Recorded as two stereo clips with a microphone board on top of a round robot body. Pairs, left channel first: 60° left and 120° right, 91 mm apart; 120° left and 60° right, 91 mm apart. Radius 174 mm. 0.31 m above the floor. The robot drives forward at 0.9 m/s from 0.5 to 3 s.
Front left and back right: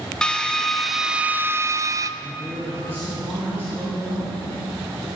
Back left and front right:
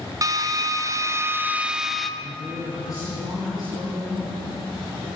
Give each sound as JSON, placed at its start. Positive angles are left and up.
{"t": 0.2, "sound": "a drill", "azimuth_deg": -20, "distance_m": 1.2}
{"t": 2.2, "sound": "a woman speaking", "azimuth_deg": 170, "distance_m": 6.5}